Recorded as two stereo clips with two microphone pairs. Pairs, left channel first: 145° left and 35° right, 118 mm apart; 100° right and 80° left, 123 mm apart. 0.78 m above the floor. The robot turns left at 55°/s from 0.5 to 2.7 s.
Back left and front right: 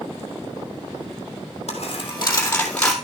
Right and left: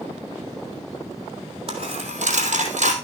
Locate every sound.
1.7 s a dropped coin: 120° left, 3 m; by 2.9 s 65° left, 3 m